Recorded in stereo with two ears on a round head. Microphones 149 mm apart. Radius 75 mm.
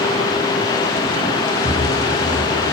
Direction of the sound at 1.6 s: 15° right (ahead or behind).